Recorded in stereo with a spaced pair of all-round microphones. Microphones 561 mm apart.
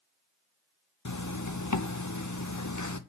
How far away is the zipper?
About 0.8 m.